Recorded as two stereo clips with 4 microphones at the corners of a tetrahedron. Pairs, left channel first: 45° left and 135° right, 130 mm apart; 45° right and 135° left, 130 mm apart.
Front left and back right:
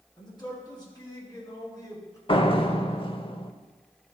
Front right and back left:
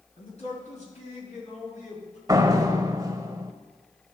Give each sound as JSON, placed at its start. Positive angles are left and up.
{"t": 0.2, "sound": "a man speaking", "azimuth_deg": -10, "distance_m": 4.5}
{"t": 2.3, "sound": "a door slam", "azimuth_deg": 80, "distance_m": 0.7}